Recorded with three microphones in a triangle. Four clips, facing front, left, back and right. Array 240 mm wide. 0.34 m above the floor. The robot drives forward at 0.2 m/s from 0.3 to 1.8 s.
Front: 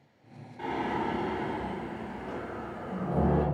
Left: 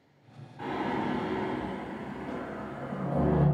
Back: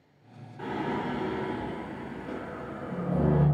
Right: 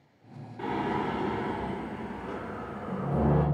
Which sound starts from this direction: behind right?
Singing, at 0.6 s.